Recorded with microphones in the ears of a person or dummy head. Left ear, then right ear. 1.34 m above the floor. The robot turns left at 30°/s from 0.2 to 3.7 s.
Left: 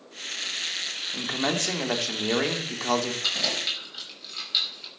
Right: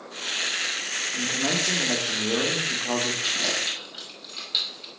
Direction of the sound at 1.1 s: 135° left.